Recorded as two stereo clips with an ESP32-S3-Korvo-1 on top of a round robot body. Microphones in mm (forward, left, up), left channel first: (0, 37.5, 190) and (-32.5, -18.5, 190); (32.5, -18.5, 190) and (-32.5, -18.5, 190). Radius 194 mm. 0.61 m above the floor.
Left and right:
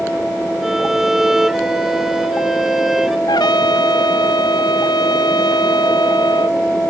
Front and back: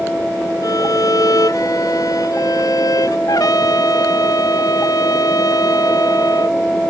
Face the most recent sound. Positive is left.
turn(degrees=40)